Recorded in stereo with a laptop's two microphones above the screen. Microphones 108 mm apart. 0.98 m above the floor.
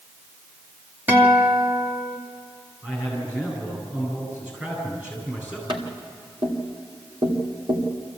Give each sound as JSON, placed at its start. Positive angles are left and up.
{"t": 1.1, "sound": "a guitar", "side_deg": -20, "distance_m": 2.0}
{"t": 2.8, "sound": "a man speaking", "side_deg": -20, "distance_m": 9.0}
{"t": 5.7, "sound": "tapping", "side_deg": -60, "distance_m": 2.5}